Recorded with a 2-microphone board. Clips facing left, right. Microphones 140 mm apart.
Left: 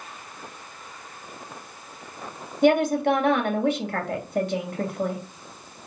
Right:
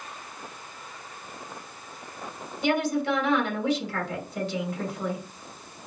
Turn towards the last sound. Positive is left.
turn(degrees=55)  # may be behind; listen again after turning